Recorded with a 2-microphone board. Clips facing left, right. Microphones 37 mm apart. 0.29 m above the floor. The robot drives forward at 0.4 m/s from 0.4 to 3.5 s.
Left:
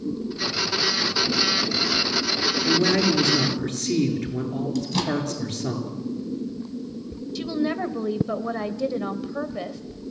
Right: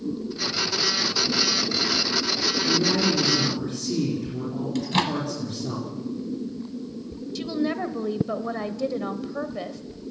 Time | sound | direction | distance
2.7 | a man speaking | 65° left (ahead or behind) | 5 m
4.8 | a microwave | 45° right (ahead or behind) | 1.5 m
7.3 | a woman speaking | 5° left (ahead or behind) | 0.9 m